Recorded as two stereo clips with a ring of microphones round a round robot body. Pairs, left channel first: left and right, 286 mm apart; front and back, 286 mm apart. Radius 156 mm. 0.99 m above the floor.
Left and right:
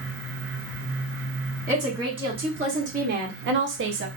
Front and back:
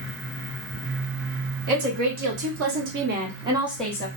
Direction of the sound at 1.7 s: 170° right.